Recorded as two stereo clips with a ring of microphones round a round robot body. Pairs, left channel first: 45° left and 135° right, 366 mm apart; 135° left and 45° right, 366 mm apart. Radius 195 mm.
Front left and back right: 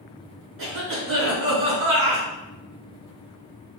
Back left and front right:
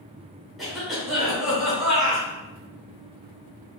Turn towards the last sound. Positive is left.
turn(degrees=-135)